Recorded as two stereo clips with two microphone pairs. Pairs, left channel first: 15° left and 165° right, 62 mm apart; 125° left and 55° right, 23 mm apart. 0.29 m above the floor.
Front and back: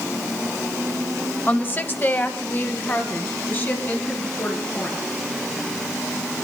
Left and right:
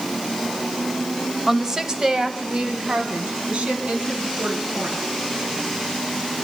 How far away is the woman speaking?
About 1.0 m.